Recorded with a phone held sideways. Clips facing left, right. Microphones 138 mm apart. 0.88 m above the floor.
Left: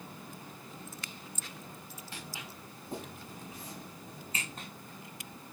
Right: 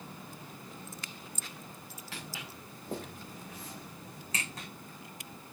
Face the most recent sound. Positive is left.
turn(degrees=-70)  # may be behind; listen again after turning